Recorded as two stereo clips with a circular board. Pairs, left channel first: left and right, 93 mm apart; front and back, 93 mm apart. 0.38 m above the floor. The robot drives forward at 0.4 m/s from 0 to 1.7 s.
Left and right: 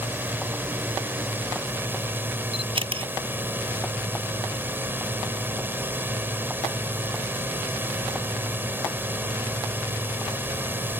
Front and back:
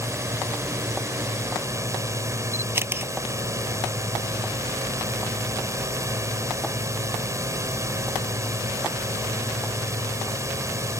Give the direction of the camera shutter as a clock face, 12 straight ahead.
4 o'clock.